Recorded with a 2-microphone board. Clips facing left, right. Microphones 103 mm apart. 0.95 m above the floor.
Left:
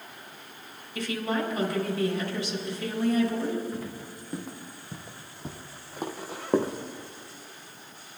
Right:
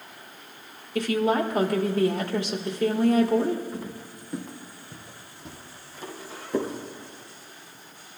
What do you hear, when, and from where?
0.9 s a woman speaking: 60° right (ahead or behind), 1.7 m
3.7 s footsteps: 10° right (ahead or behind), 3 m; by 6.7 s 65° left (ahead or behind), 2.5 m